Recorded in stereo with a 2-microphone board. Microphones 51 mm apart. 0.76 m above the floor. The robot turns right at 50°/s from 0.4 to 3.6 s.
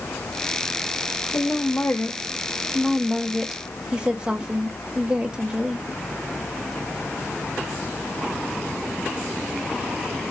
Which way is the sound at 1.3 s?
90° left.